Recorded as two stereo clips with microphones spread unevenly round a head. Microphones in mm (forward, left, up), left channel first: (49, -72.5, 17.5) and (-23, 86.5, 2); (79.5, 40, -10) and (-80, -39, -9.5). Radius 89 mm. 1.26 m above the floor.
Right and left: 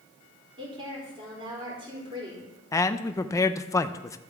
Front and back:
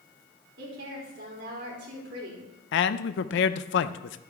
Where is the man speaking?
5° left, 0.5 m.